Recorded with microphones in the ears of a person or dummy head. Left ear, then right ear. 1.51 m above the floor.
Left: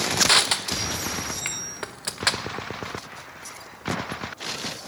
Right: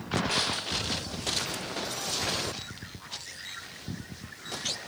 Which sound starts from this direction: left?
Crushing, at 0.2 s.